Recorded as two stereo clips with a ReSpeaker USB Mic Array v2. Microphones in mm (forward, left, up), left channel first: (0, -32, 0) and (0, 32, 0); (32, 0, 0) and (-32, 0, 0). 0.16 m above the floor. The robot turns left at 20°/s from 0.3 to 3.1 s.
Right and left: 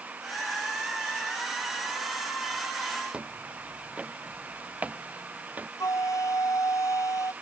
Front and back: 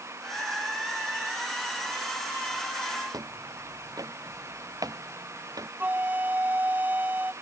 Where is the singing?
I don't hear singing.